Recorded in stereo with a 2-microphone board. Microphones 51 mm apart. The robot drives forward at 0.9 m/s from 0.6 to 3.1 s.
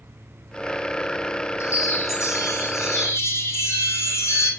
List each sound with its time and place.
1.6 s a chime: 70° left (ahead or behind), 2 m; by 4.5 s 65° left (ahead or behind), 2 m